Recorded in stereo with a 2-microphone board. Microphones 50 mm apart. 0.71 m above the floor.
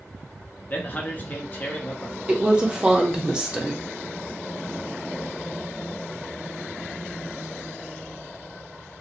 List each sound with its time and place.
0.7 s a man speaking: 35° left (ahead or behind), 0.7 m
2.3 s a woman speaking: 20° right (ahead or behind), 0.6 m